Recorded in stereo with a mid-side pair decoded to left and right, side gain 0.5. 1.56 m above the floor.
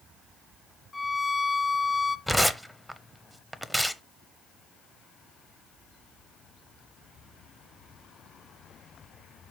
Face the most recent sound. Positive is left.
turn(degrees=5)